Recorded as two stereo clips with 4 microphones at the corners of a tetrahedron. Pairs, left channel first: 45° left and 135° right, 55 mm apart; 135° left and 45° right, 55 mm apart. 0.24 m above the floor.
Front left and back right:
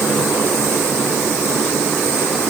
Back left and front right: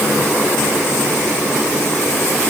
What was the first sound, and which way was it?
Only background noise.